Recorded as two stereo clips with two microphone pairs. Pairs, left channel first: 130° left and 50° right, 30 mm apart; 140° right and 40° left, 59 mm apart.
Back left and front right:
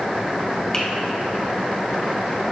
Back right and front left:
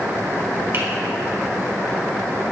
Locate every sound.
0.7 s a finger snap: 65° left, 1.6 m